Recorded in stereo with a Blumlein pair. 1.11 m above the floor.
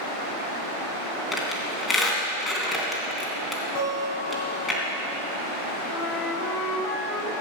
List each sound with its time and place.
1.3 s a squeak: 15° left, 3 m
3.8 s a guitar: 45° left, 4.5 m
5.9 s a flute: 25° left, 1.6 m